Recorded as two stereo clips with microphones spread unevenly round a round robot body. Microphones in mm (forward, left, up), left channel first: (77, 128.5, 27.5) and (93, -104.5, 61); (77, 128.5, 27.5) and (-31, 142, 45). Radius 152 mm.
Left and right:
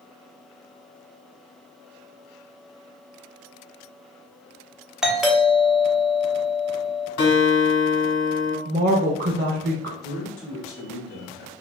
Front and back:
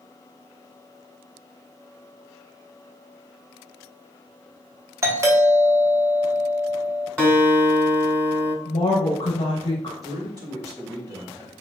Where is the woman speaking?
40° right, 0.9 m.